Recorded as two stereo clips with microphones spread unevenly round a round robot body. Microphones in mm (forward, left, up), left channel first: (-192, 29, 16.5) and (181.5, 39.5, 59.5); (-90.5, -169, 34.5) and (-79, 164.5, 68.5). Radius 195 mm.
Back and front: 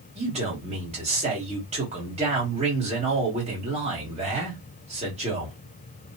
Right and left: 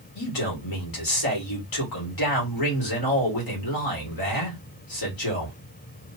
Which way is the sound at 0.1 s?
75° right.